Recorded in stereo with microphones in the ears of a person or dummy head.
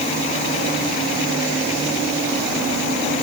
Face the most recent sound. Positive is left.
No sound to turn to.